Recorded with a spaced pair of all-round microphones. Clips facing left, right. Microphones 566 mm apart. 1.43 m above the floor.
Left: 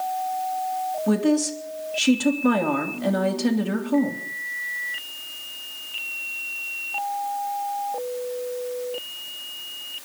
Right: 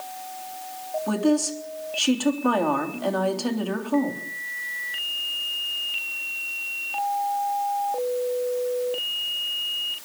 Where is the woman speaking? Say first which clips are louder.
Left 2 dB; 45° left (ahead or behind), 3 m.